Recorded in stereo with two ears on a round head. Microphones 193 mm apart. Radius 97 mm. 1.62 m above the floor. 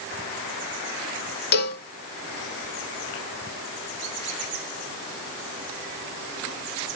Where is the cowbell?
45° left (ahead or behind), 0.8 m.